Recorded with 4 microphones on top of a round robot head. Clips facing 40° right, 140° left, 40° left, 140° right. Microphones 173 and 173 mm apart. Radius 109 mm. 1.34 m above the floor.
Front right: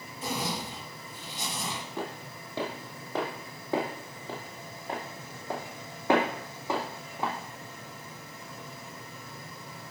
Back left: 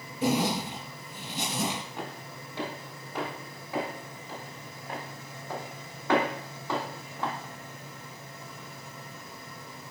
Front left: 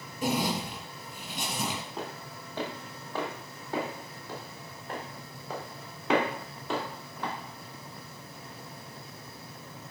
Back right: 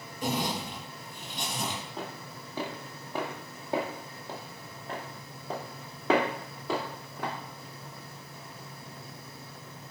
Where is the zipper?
125° left, 2.5 m.